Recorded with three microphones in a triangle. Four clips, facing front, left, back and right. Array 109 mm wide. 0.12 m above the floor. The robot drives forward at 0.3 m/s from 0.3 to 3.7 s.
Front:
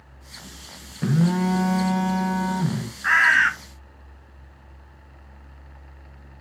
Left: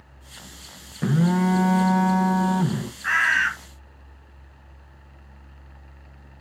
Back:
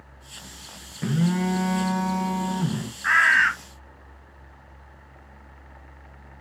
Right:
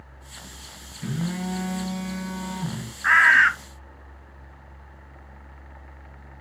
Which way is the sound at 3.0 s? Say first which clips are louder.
Right 5 dB, front 1 dB; 70° right.